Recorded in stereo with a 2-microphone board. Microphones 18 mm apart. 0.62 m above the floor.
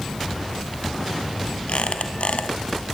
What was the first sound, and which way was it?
A squeak, 85° left.